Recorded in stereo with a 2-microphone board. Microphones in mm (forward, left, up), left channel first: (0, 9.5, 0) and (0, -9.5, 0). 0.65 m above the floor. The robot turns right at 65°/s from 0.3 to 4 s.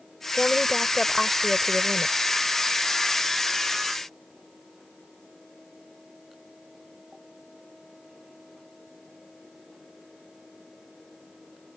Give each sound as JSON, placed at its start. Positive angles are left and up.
{"t": 0.3, "sound": "a woman speaking", "azimuth_deg": 110}